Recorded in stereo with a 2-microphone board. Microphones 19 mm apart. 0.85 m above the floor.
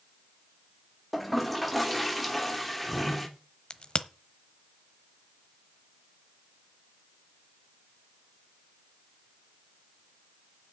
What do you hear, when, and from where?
1.1 s a toilet flushing: centre (ahead or behind), 2 m
3.7 s a crack: 45° left (ahead or behind), 1.0 m